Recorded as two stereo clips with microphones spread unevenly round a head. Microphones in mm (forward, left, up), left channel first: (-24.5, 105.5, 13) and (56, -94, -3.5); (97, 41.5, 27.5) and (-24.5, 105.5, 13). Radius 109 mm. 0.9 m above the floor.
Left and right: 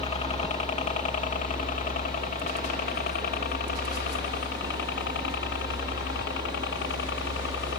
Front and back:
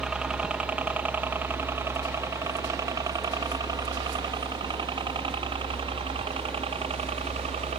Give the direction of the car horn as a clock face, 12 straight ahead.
No car horn in this recording.